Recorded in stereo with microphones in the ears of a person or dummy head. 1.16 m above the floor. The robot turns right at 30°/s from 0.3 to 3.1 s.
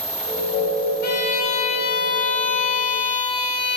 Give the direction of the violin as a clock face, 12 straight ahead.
8 o'clock.